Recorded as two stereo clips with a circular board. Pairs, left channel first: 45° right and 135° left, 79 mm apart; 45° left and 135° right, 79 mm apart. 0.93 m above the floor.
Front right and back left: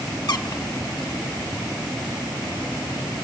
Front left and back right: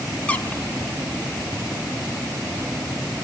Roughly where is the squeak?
Ahead right.